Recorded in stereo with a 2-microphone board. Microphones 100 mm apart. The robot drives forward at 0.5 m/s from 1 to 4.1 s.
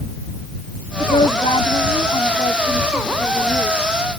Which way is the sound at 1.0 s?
85° left.